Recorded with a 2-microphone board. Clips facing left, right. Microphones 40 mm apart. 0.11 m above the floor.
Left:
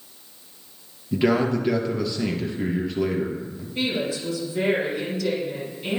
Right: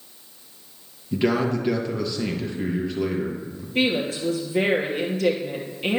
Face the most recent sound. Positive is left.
turn(degrees=-50)  # may be behind; listen again after turning